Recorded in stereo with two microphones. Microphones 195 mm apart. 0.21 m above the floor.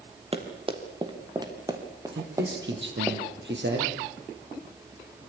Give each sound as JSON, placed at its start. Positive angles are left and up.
{"t": 0.3, "sound": "running footsteps", "side_deg": -30, "distance_m": 4.0}
{"t": 2.1, "sound": "a man speaking", "side_deg": -65, "distance_m": 6.0}